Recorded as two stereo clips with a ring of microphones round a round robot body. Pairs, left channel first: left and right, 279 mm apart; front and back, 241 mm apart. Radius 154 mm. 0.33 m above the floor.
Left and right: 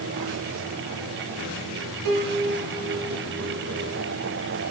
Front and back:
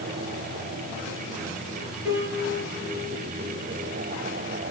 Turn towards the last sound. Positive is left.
turn(degrees=-95)